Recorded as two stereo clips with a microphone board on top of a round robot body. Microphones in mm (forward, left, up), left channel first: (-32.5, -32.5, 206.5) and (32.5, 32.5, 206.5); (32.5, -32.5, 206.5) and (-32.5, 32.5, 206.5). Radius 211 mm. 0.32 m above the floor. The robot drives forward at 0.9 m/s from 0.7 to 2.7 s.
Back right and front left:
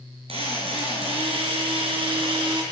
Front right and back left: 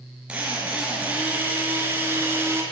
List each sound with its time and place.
0.3 s a drill: 55° left, 7 m; by 2.6 s 70° left, 6 m